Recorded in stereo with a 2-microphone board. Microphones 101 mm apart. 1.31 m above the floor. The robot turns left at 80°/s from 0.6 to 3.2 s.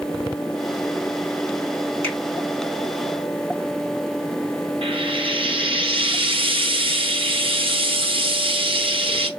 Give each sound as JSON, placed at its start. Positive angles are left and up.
{"t": 2.0, "sound": "a finger snap", "side_deg": -70, "distance_m": 2.5}
{"t": 4.8, "sound": "frying", "side_deg": -55, "distance_m": 0.8}